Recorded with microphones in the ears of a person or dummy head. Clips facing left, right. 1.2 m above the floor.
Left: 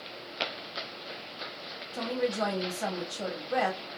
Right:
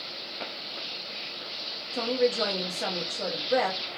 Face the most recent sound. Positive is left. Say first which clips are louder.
# right 5 dB
turn(degrees=-35)  # may be behind; listen again after turning